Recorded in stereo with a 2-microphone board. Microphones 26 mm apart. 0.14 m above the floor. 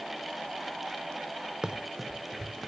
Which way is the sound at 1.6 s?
25° right (ahead or behind).